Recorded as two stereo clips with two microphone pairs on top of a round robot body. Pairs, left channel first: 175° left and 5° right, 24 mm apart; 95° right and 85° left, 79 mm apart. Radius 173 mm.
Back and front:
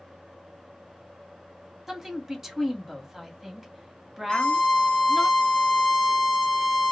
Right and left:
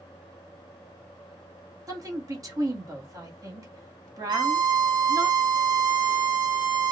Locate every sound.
1.9 s a woman speaking: 60° left, 1.7 m
4.3 s a violin: 115° left, 0.8 m